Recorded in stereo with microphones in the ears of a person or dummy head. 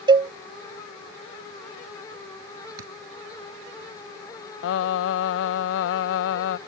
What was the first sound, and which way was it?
A cowbell, 30° right (ahead or behind).